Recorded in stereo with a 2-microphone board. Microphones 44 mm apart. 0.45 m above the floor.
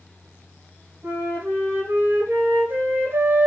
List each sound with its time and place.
1.0 s a flute: 70° right (ahead or behind), 1.4 m